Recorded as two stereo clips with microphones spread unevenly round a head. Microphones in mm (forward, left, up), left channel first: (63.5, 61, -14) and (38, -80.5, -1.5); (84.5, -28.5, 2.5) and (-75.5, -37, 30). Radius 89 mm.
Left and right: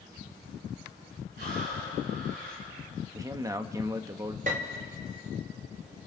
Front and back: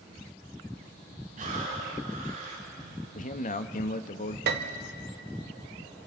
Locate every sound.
1.4 s breathing: 140° right, 7 m
3.1 s a man speaking: 30° right, 1.1 m
4.5 s a piano: 155° right, 1.1 m